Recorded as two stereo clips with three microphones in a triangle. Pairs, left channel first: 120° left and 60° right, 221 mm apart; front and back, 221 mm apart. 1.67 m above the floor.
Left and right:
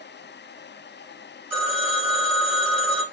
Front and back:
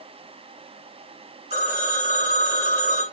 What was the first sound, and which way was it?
A phone ringing, 125° right.